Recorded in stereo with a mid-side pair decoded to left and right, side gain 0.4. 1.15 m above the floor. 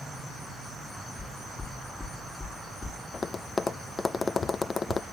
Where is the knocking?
20° left, 2.5 m.